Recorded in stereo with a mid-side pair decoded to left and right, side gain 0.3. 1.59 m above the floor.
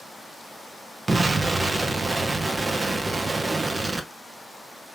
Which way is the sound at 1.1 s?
40° right.